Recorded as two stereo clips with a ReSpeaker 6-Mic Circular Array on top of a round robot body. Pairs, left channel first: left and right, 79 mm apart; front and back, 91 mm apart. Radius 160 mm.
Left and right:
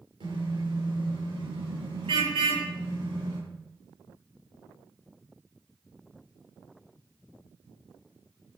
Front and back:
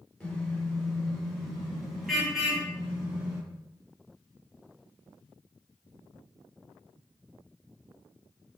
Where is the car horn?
80° right, 10 m; by 3.4 s 100° right, 10.5 m.